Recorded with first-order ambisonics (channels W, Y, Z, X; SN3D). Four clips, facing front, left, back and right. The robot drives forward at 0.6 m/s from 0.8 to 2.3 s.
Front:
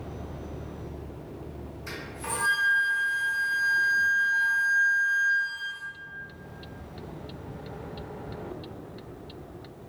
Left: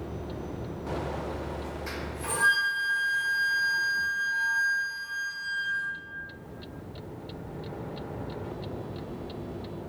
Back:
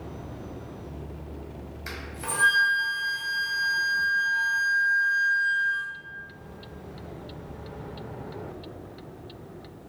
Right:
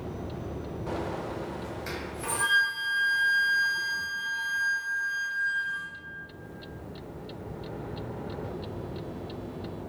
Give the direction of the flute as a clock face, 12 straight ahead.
5 o'clock.